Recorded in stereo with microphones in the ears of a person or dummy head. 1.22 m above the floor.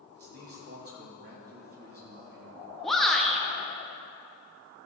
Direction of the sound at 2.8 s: Centre (ahead or behind).